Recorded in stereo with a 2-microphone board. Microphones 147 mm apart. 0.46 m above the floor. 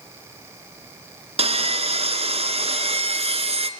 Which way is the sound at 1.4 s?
40° right (ahead or behind).